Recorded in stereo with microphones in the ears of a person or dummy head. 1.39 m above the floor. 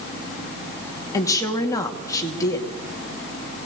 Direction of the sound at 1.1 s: 10° left (ahead or behind).